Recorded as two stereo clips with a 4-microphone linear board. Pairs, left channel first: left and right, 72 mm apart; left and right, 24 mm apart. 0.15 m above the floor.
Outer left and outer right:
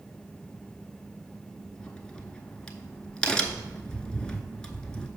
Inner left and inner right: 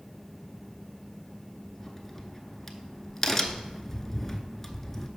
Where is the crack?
15° left (ahead or behind), 0.6 m.